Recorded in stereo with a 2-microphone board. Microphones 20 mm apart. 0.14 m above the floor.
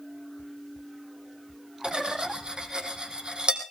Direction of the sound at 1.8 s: 50° right (ahead or behind).